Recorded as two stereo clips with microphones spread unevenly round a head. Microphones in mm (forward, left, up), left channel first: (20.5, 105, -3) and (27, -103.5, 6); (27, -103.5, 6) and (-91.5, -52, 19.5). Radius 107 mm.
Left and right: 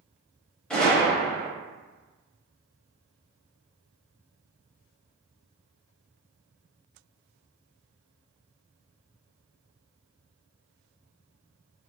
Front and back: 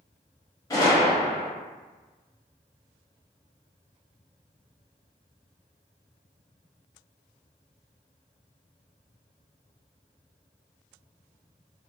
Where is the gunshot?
10° left, 0.8 m.